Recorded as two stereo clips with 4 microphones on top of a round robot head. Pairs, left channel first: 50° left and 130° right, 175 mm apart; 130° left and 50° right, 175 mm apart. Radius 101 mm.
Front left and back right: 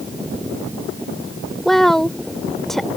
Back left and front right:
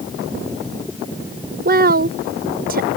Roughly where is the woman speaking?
Ahead right.